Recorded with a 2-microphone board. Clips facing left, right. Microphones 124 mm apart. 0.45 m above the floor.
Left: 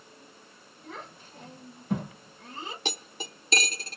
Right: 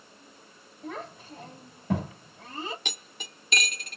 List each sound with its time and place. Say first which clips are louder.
0.8 s a child speaking: right 6 dB; 85° right, 4.5 m
2.9 s cutlery clinking: left 6 dB; 30° left (ahead or behind), 0.6 m